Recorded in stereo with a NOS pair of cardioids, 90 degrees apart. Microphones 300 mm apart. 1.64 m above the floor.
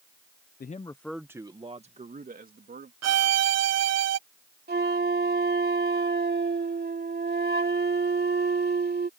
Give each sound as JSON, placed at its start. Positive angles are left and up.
{"t": 0.6, "sound": "a man speaking", "azimuth_deg": 30}
{"t": 3.0, "sound": "a violin", "azimuth_deg": -55}
{"t": 4.7, "sound": "a flute", "azimuth_deg": -35}